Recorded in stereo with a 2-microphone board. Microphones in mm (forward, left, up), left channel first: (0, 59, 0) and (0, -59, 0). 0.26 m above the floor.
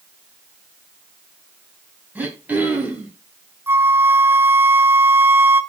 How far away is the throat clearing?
About 2 m.